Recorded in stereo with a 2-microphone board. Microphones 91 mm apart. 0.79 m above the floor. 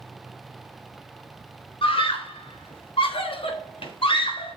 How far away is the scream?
About 3.5 m.